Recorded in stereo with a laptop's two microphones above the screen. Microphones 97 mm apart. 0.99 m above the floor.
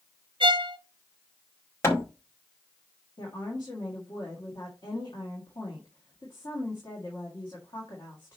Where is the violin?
60° right (ahead or behind), 0.6 m.